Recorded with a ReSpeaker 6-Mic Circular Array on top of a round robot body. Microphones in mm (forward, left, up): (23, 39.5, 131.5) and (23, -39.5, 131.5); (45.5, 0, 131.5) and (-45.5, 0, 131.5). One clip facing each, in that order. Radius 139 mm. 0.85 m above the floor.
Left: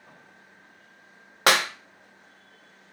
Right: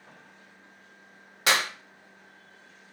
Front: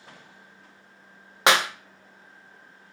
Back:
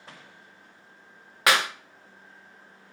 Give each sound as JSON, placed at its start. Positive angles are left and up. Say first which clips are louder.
{"t": 1.5, "sound": "a clap", "louder": "left 4 dB, front 2 dB", "azimuth_deg": 65, "distance_m": 0.6}